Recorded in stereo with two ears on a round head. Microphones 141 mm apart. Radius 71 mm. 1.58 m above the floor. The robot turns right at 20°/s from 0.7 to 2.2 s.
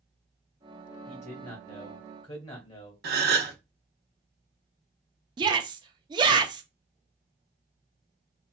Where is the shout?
30° right (ahead or behind), 0.6 m.